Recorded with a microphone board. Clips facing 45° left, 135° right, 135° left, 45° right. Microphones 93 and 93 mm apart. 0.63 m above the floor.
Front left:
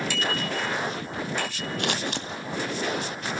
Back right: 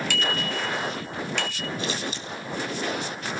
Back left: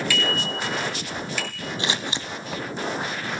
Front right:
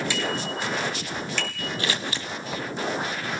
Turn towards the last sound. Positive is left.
turn(degrees=65)